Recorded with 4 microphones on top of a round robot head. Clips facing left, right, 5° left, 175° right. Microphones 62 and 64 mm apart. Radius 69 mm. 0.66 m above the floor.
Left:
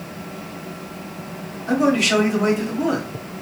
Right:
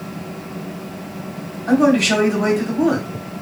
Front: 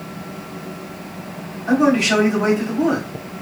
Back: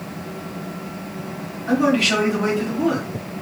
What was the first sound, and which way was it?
A man speaking, 65° right.